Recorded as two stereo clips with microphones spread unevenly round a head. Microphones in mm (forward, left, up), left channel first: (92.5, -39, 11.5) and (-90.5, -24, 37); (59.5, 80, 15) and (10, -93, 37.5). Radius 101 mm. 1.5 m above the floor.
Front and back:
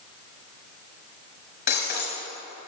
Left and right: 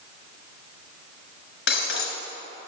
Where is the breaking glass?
55° left, 2.5 m.